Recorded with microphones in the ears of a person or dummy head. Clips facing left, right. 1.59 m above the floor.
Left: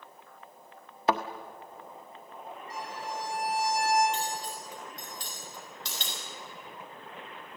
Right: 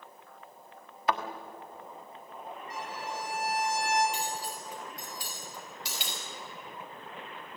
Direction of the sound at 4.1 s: 5° right (ahead or behind).